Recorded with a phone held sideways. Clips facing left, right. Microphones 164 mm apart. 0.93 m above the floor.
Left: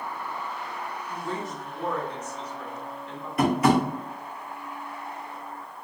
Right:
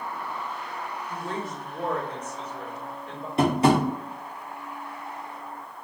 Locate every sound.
1.1 s a woman speaking: 55° right (ahead or behind), 1.9 m
3.4 s tapping: 30° right (ahead or behind), 0.8 m